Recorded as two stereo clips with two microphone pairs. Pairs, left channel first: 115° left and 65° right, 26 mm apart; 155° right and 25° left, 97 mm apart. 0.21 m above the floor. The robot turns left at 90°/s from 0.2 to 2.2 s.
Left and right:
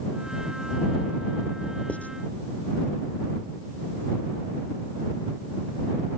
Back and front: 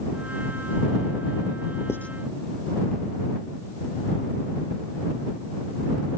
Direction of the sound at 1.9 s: 145° left.